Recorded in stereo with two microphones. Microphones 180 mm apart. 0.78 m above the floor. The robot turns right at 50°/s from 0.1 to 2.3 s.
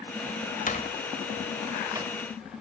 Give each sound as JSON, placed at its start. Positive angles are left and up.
{"t": 0.7, "sound": "a door slam", "side_deg": 45, "distance_m": 2.0}